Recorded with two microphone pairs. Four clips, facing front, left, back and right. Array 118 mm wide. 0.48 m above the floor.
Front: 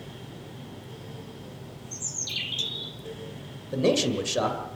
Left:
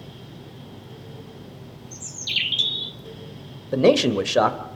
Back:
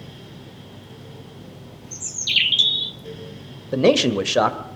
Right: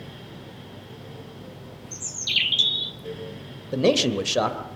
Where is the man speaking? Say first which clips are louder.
Left 4 dB, back 7 dB; 130° left, 1.9 m.